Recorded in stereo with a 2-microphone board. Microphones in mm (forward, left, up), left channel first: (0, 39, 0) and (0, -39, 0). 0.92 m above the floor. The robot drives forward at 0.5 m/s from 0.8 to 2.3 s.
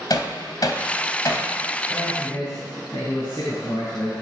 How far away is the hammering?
About 1.8 m.